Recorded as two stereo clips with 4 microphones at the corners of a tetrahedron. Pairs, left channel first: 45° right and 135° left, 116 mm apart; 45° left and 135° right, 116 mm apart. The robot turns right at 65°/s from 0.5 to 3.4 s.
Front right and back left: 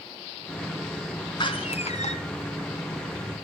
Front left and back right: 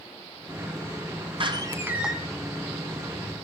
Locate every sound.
1.4 s a door slam: 95° right, 2.5 m; by 2.1 s 45° right, 2.5 m